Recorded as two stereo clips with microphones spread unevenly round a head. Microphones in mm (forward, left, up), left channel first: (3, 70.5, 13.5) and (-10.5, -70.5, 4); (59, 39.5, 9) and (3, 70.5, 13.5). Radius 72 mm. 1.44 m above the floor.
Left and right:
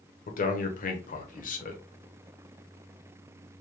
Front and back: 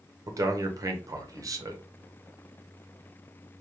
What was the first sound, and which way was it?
A man speaking, 120° left.